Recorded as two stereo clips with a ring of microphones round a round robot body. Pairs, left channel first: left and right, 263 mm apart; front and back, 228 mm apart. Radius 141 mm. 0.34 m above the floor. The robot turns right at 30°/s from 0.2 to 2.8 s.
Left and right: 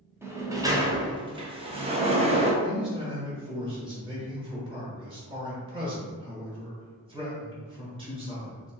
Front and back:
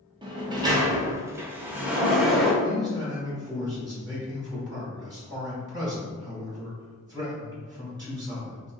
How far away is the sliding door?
About 0.5 m.